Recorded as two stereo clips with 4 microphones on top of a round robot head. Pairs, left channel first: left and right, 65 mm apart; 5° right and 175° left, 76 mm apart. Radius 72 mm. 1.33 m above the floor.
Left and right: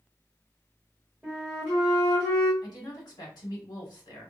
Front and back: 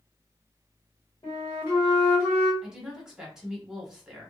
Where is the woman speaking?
95° left, 1.3 m.